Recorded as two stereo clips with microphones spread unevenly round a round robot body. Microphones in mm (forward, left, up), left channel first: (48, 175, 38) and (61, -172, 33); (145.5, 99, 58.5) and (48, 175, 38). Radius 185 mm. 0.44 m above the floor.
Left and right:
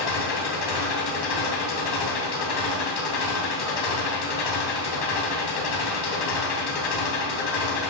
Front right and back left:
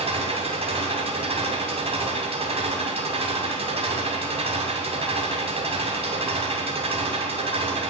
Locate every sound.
0.0 s an engine running: 110° left, 3 m